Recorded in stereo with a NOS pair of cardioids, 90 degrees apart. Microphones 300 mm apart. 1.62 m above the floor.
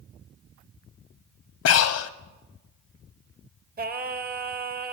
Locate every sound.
1.6 s breathing: 55° left, 0.7 m
3.8 s singing: 30° right, 0.9 m